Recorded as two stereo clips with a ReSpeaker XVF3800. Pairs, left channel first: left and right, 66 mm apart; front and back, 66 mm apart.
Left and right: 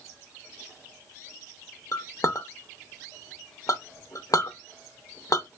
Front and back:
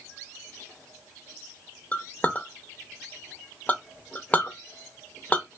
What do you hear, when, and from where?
1.9 s a clink: 65° left, 0.7 m